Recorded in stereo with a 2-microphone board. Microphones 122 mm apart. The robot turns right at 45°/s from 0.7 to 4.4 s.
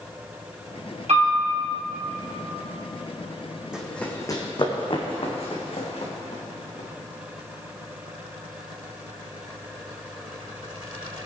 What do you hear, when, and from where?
1.1 s a piano: 70° right (ahead or behind), 3.5 m; by 1.4 s 60° right (ahead or behind), 3.5 m
3.7 s running footsteps: 5° right (ahead or behind), 1.8 m; by 6.9 s 65° left (ahead or behind), 3.5 m